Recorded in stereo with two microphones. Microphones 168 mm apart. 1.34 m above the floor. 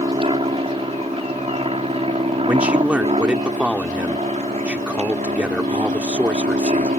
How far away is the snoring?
No snoring in this recording.